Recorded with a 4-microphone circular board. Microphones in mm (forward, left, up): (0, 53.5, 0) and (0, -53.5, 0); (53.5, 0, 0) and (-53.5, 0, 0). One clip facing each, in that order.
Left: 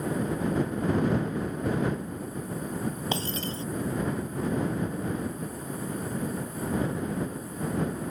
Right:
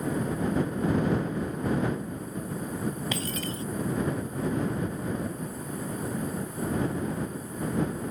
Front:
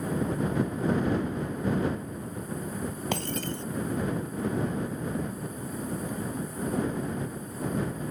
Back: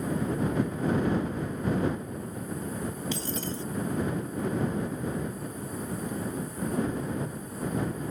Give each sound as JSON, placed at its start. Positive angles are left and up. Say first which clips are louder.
{"t": 3.1, "sound": "breaking glass", "louder": "left 1 dB, front 2 dB", "azimuth_deg": 30}